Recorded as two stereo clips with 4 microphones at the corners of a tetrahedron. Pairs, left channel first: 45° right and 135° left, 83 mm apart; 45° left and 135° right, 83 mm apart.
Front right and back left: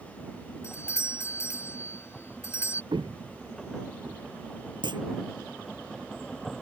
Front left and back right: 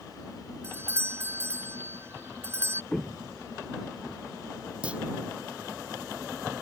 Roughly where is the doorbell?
Right.